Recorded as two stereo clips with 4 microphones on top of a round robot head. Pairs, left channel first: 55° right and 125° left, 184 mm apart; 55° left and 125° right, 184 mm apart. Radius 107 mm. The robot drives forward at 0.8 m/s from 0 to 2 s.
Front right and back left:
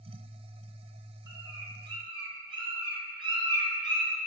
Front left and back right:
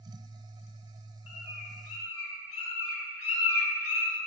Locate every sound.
1.3 s a bird: 50° left, 4.5 m; by 4.2 s 55° left, 4.5 m